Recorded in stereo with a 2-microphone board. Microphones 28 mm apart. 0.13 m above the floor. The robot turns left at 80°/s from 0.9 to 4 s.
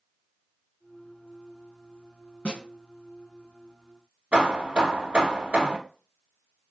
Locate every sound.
2.5 s a snare drum: 35° left (ahead or behind), 1.9 m; by 2.6 s 30° left (ahead or behind), 1.9 m
4.3 s hammering: 50° right (ahead or behind), 1.1 m